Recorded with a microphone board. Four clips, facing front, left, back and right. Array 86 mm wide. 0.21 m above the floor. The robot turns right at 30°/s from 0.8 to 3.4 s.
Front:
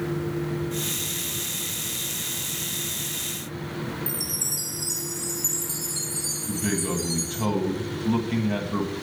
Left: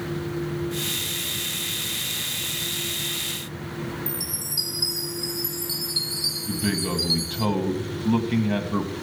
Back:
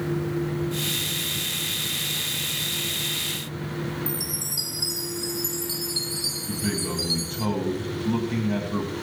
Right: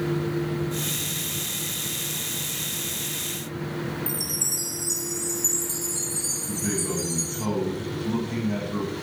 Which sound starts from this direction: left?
A man speaking, at 6.5 s.